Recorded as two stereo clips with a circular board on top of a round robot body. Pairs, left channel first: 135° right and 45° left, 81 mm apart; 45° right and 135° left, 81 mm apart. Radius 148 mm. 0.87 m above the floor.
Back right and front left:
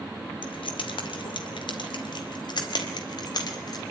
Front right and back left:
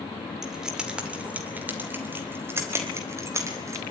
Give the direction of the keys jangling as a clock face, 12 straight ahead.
5 o'clock.